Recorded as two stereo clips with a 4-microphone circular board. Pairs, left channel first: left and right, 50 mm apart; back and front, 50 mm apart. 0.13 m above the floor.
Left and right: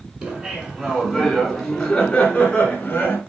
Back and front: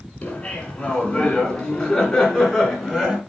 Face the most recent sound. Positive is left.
turn(degrees=85)